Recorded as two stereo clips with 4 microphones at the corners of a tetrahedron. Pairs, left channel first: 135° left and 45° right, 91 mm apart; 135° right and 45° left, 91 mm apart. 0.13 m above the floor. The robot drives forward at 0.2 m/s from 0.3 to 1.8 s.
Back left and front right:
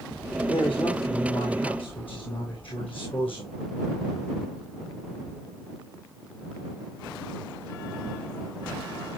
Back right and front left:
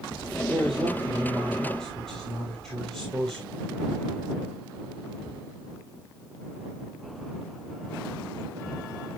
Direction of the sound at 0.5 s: 140° left.